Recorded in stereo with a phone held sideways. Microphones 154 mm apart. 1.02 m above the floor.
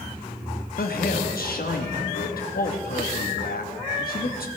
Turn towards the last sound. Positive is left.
turn(degrees=75)  # may be behind; listen again after turning